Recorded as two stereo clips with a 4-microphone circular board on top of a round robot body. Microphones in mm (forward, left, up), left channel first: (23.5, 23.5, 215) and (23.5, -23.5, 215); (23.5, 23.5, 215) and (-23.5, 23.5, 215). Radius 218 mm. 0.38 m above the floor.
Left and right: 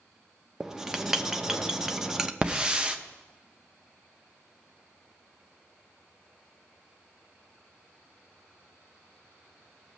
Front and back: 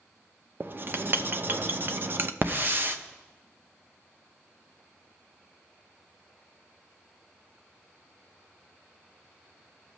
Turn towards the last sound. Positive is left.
turn(degrees=-155)